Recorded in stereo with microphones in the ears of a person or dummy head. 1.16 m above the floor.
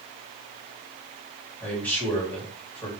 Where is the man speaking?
15° left (ahead or behind), 2 m.